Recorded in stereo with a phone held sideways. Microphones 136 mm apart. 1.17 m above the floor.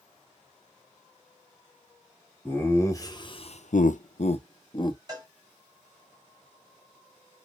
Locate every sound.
2.5 s laughter: 15° left (ahead or behind), 1.2 m; by 5.0 s 35° left (ahead or behind), 1.1 m
5.1 s a cowbell: 30° right (ahead or behind), 2 m